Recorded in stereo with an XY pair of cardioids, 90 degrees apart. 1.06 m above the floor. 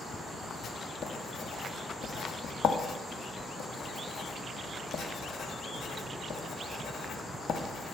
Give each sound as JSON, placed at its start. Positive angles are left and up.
{"t": 0.6, "sound": "writing", "azimuth_deg": 65, "distance_m": 1.0}